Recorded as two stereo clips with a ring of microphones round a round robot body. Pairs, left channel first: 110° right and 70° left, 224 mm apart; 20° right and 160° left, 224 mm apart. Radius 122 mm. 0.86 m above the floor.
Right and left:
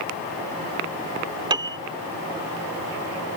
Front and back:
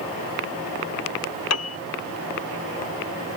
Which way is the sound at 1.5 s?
5° right.